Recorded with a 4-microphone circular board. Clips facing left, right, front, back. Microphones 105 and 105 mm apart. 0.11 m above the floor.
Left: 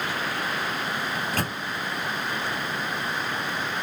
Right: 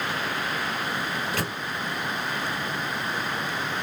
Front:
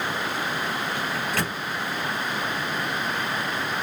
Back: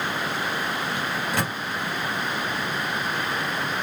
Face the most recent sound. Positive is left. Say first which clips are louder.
# left 1 dB, back 1 dB
turn(degrees=110)